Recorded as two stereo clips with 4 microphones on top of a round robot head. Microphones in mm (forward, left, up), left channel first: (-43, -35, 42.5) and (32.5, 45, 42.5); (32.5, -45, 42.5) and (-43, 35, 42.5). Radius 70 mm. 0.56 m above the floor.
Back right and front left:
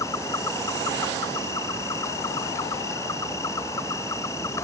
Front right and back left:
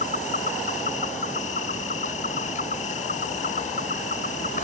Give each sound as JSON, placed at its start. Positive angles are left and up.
{"t": 0.0, "sound": "an insect", "azimuth_deg": -65}